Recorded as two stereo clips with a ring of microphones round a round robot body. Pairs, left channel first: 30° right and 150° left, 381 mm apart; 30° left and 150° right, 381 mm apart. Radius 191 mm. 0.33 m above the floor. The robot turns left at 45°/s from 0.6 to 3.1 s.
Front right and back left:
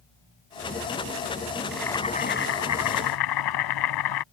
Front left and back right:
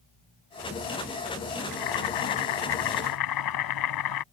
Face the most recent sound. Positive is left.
turn(degrees=0)